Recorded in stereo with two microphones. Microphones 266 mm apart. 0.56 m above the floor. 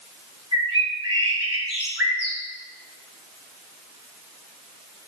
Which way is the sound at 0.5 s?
60° right (ahead or behind).